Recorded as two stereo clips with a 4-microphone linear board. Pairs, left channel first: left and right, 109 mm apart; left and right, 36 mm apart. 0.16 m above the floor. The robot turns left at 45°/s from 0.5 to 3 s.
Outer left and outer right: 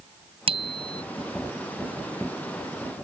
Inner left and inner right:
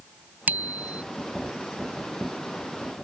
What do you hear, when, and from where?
0.5 s a bicycle bell: 55° right (ahead or behind); by 1.0 s 35° right (ahead or behind)